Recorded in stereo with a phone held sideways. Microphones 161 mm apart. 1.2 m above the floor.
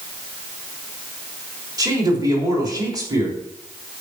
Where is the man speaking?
25° right (ahead or behind), 3.5 m.